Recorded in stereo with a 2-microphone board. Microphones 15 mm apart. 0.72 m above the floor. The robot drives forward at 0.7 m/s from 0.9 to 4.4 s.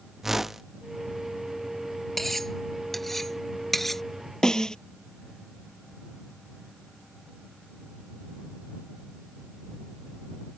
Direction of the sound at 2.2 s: 5° left (ahead or behind).